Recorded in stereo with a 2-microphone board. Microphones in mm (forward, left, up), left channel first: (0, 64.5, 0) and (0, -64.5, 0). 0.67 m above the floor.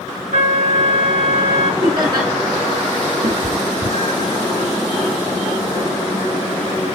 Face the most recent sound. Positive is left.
turn(degrees=-85)